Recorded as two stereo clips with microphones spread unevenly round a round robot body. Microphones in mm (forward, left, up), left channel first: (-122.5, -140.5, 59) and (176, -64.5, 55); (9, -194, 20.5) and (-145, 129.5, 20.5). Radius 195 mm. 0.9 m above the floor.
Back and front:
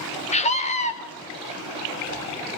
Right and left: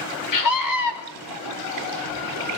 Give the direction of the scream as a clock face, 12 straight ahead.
3 o'clock.